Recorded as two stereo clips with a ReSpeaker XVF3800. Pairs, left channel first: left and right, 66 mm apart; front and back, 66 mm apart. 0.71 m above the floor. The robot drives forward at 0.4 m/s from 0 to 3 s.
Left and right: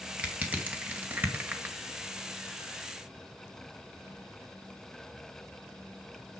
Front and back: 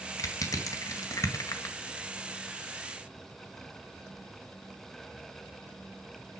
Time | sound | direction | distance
0.2 | crushing | 25° right | 2 m